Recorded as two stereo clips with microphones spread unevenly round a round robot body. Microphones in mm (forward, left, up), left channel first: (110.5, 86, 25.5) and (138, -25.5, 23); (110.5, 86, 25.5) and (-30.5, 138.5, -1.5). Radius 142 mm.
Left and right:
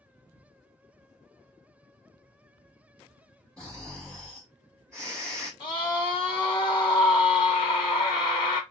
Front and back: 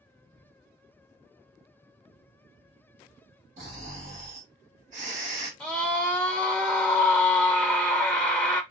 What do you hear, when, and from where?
3.6 s snoring: 175° right, 0.9 m
5.6 s a scream: 65° left, 0.8 m